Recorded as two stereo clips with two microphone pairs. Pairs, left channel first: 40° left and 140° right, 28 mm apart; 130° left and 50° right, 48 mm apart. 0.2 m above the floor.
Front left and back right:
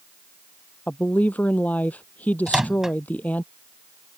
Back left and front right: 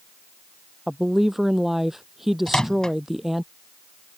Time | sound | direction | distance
0.9 | a woman speaking | 30° left | ?
2.5 | a microwave | straight behind | ?